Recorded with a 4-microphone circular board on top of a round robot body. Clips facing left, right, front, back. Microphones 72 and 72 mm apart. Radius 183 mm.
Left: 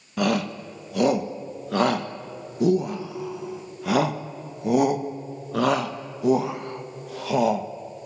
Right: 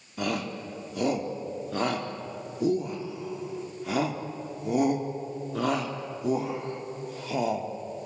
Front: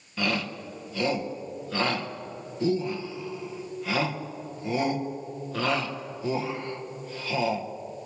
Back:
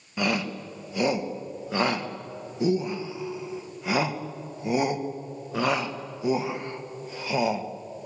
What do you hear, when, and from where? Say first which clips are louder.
0.2 s a shout: left 7 dB, back 2 dB; 105° left, 1.6 m